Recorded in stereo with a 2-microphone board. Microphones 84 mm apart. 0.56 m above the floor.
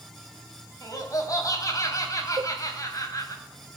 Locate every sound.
0.8 s laughter: 40° left (ahead or behind), 3 m
2.4 s a cowbell: 50° right (ahead or behind), 0.7 m